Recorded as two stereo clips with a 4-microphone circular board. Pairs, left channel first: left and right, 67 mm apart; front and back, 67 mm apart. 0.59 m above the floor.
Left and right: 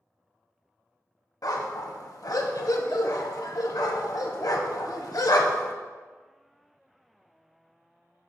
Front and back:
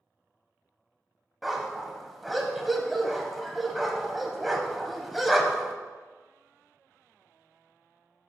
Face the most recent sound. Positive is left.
turn(degrees=90)